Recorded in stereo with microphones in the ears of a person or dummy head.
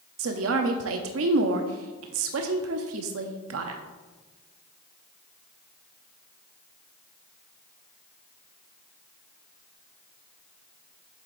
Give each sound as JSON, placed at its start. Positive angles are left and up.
{"t": 0.2, "sound": "a woman speaking", "side_deg": -65, "distance_m": 0.6}